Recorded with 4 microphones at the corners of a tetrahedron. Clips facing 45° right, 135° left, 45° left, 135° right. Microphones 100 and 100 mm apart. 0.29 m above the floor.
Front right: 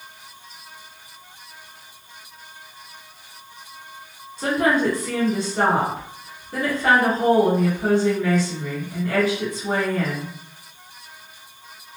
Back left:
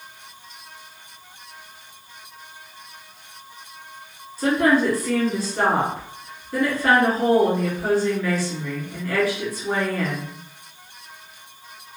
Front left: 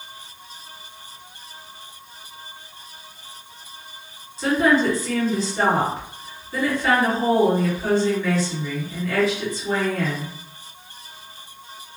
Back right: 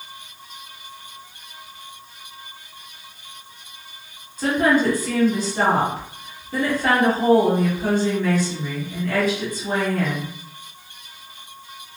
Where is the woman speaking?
110° right, 2.0 m.